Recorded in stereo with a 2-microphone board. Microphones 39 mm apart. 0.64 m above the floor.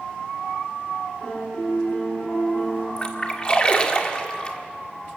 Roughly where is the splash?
Left.